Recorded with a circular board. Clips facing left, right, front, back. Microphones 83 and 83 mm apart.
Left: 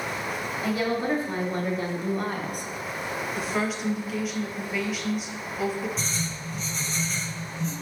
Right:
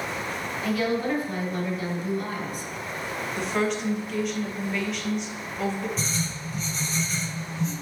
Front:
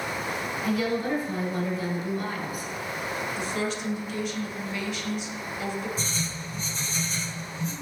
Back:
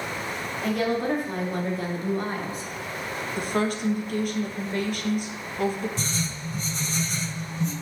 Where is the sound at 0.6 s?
155° left, 2 m; by 2.7 s 115° left, 1.0 m.